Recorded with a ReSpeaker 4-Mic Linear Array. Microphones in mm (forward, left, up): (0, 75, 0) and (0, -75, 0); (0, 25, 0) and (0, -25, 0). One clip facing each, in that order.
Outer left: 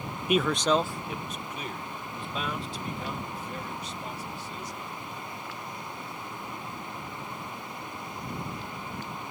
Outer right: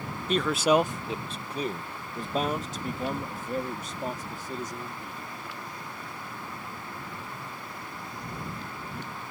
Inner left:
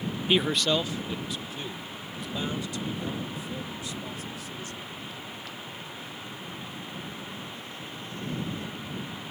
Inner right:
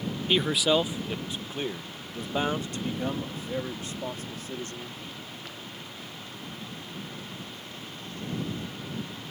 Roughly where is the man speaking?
Centre.